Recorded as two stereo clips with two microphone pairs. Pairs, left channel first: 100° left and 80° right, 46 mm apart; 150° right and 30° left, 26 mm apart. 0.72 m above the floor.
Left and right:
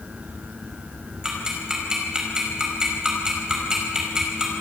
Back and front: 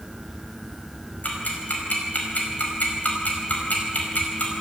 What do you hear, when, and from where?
1.2 s ticking: 155° right, 5 m